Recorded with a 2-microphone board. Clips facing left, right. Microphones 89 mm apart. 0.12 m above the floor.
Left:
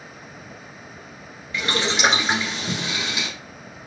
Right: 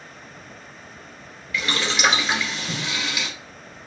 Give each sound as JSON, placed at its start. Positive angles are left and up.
{"t": 1.5, "sound": "boiling", "side_deg": 30, "distance_m": 1.5}